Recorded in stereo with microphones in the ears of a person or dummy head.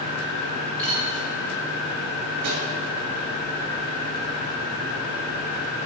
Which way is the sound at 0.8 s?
10° left (ahead or behind).